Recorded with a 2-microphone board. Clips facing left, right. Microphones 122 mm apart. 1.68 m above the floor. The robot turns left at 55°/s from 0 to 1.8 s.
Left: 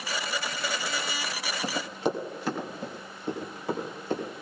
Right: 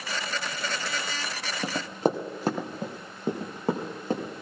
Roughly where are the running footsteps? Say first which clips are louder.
Right 4 dB; right.